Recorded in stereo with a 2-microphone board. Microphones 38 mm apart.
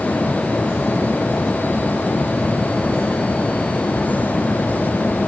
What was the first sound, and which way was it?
Only background noise.